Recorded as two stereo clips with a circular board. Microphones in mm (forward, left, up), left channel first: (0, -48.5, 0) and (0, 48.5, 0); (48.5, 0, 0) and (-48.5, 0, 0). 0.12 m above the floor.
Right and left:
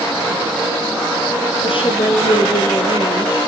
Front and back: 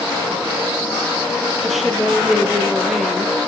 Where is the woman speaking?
90° right, 2.5 m.